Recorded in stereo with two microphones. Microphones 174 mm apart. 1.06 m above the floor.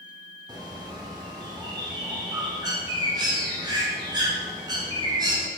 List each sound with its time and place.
0.5 s a bird: 25° right (ahead or behind), 0.6 m